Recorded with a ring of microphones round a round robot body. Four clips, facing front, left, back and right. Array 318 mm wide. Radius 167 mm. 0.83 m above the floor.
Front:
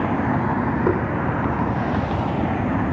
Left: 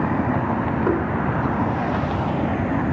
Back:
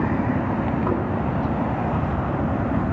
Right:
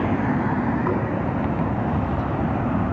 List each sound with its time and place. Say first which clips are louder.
0.9 s knocking: left 6 dB, front 5 dB; 20° left, 3 m